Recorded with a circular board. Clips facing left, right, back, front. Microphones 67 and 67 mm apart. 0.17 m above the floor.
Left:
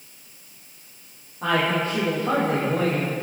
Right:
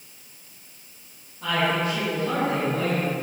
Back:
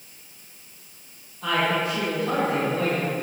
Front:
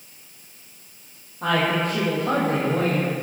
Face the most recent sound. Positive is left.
turn(degrees=40)